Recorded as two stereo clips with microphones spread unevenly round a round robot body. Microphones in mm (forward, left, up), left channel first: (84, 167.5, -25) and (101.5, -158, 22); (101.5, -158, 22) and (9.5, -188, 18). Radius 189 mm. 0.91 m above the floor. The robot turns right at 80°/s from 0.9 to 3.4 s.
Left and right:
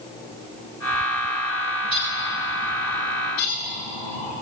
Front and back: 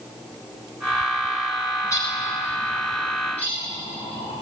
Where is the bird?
50° right, 10 m; by 4.3 s 75° left, 10 m.